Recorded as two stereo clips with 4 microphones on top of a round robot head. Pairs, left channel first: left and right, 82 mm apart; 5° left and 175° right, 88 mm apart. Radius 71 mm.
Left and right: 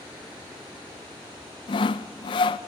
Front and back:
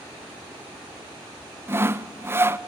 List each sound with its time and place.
1.7 s sawing: 125° left, 0.5 m